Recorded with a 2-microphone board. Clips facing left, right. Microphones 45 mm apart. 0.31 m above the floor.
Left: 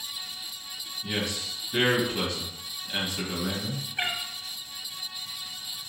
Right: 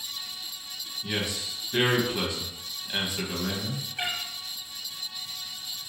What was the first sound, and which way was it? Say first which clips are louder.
A man speaking: even; 10° right (ahead or behind).